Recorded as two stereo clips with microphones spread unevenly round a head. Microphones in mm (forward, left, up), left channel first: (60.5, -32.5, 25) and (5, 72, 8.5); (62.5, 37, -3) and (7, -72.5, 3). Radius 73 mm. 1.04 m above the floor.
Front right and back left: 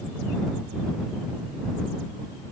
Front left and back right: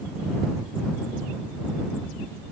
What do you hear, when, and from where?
Only background noise.